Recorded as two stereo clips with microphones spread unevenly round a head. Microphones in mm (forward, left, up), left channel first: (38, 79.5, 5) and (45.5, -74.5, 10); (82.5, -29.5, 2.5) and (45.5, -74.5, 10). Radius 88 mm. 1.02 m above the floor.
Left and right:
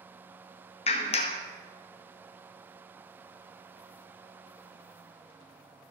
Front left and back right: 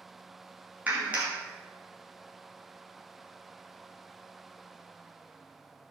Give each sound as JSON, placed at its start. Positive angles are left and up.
{"t": 0.9, "sound": "a clap", "azimuth_deg": 150, "distance_m": 0.9}